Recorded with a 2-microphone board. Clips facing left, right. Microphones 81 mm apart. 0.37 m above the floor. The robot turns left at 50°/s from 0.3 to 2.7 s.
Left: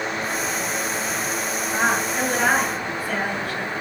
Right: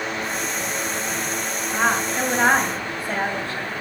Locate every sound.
1.7 s a woman speaking: 15° left, 3 m; by 3.7 s 35° right, 3 m